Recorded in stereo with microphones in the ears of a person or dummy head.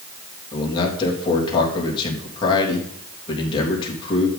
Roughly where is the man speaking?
Left.